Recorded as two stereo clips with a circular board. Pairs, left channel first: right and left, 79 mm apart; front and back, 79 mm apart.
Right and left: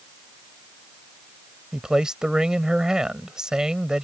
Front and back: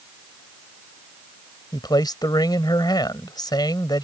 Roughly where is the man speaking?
Ahead.